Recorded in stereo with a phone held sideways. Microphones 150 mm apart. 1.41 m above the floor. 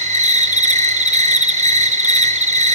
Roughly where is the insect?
Right.